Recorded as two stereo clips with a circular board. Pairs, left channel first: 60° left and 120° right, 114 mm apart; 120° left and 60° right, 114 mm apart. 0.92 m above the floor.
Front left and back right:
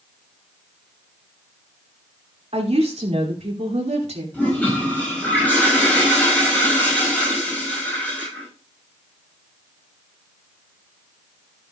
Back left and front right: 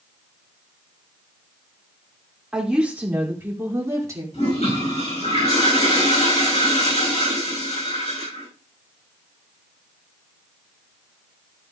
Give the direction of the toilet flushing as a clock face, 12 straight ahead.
7 o'clock.